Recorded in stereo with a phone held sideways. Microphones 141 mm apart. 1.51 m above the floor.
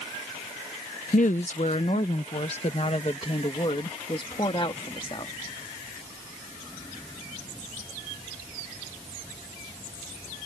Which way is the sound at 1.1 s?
65° left (ahead or behind).